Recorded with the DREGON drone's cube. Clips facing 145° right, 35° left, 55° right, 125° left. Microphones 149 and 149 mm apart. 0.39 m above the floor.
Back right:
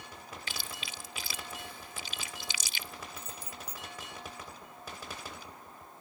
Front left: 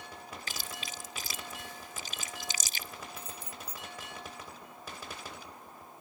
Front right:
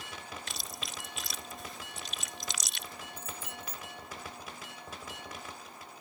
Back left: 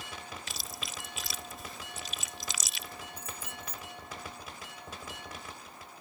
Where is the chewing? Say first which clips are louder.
Front left 1 dB, even; 35° left.